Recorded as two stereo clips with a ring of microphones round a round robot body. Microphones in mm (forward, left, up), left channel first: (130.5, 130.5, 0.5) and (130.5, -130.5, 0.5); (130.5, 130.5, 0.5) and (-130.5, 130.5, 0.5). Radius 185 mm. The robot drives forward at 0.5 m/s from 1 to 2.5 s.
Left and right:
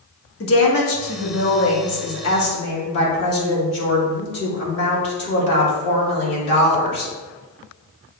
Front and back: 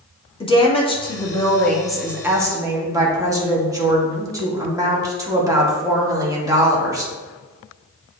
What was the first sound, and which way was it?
A woman speaking, 70° left.